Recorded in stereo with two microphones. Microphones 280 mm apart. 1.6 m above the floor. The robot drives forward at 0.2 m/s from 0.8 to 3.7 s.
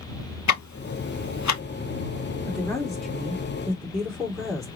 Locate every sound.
0.5 s ticking: 80° left, 0.7 m; by 1.6 s 75° left (ahead or behind), 0.7 m
2.5 s a woman speaking: centre (ahead or behind), 1.7 m